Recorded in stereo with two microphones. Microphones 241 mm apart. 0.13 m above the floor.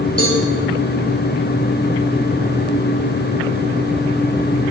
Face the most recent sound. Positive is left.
turn(degrees=85)